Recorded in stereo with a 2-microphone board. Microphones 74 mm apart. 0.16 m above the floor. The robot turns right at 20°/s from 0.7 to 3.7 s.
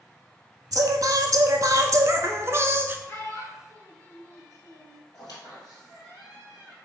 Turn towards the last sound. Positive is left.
turn(degrees=65)  # may be behind; listen again after turning